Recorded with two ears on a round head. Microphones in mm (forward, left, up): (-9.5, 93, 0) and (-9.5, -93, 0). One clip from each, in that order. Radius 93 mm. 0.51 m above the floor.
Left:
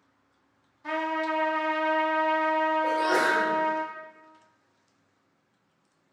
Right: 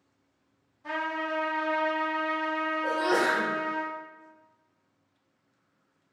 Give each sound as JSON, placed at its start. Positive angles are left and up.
{"t": 0.8, "sound": "a trumpet", "side_deg": 20, "distance_m": 1.3}
{"t": 2.8, "sound": "a sneeze", "side_deg": -10, "distance_m": 0.9}